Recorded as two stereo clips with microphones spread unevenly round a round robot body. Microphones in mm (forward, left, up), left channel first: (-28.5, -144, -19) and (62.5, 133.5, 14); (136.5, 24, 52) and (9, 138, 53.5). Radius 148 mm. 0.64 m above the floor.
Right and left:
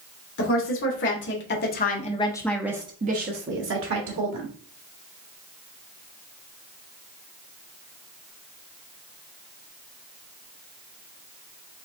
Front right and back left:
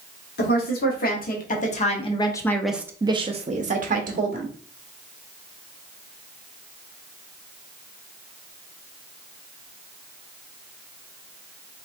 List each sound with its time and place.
0.4 s a woman speaking: 70° right, 1.6 m; by 4.5 s 115° left, 1.4 m